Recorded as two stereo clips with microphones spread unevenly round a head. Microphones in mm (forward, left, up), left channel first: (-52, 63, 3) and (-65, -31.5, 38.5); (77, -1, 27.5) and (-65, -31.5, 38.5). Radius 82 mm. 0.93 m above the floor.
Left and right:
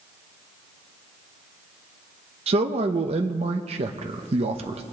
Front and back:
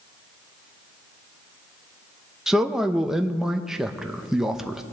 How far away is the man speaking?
About 0.9 m.